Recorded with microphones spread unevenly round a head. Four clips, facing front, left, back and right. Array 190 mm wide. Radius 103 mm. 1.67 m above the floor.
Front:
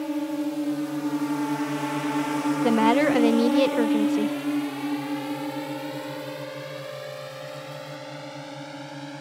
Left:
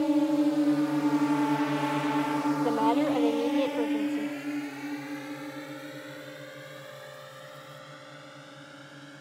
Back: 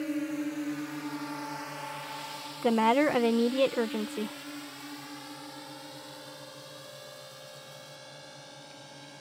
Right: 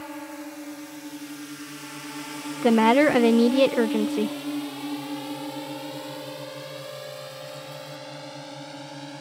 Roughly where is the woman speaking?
Right.